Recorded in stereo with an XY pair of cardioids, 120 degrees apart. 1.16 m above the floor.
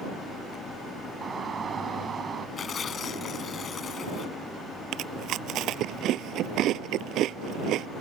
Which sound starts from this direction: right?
Chewing, at 4.9 s.